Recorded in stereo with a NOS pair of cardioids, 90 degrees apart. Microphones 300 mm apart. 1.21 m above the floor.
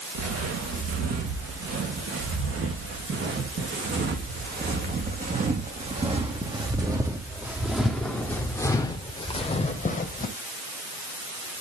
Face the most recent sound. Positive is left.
turn(degrees=30)